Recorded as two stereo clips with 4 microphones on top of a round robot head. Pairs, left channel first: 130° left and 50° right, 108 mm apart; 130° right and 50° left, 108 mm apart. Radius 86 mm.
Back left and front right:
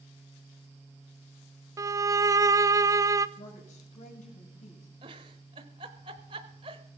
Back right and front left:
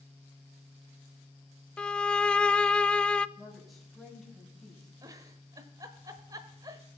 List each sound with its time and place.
1.8 s a violin: 60° right, 0.7 m
3.4 s a woman speaking: 135° left, 6.5 m
5.0 s a giggle: 10° right, 0.9 m